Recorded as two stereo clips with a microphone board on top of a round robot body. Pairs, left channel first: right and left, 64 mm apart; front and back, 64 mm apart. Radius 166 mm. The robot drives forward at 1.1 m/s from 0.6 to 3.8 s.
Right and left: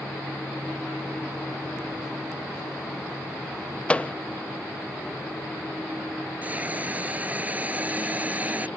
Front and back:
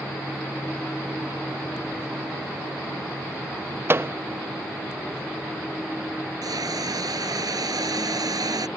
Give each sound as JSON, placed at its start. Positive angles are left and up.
{"t": 3.9, "sound": "a microwave", "azimuth_deg": -155}
{"t": 6.4, "sound": "a hiss", "azimuth_deg": 155}